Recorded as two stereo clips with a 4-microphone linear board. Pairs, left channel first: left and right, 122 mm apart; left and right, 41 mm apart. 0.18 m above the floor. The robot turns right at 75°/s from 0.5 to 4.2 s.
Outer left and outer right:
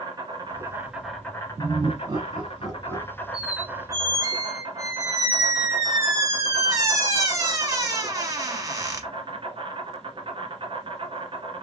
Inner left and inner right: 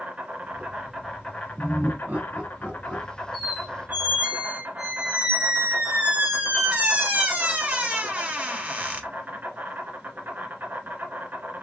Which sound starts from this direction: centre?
A squeak, at 3.3 s.